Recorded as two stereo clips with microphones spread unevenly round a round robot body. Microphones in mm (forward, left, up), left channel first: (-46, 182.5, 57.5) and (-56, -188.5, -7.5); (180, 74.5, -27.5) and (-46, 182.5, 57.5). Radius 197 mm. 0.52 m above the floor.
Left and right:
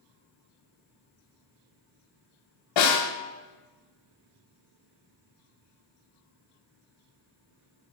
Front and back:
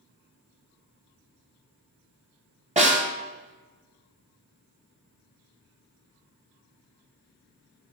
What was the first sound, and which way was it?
A snare drum, 85° left.